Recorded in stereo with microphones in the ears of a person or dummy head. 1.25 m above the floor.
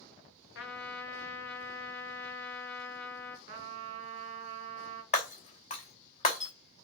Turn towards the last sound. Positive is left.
turn(degrees=30)  # may be behind; listen again after turning